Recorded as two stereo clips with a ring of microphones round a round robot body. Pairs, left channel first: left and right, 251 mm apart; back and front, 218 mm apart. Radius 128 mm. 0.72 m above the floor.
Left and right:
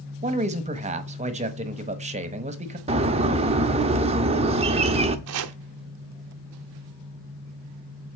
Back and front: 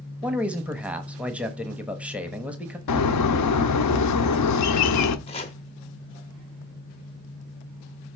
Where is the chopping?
115° right, 0.6 m.